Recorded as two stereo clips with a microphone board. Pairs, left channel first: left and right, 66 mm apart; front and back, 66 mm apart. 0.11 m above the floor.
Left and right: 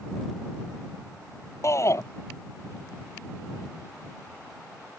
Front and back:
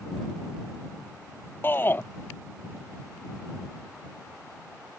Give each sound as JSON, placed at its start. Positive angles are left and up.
{"t": 1.6, "sound": "a shout", "azimuth_deg": 55}